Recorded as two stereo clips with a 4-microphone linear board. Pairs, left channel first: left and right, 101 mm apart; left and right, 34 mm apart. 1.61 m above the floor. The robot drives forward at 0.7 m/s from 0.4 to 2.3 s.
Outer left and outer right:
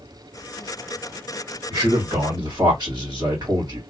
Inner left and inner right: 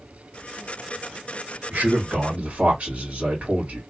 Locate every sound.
1.7 s a man speaking: 45° right (ahead or behind), 1.7 m; by 3.8 s 40° right (ahead or behind), 2 m